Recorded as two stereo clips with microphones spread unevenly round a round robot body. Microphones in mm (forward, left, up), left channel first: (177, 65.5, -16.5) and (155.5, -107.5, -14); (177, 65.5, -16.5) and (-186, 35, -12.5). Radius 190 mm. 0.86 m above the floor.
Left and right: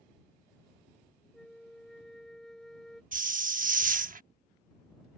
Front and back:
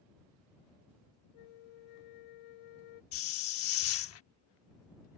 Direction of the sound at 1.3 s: 5° right.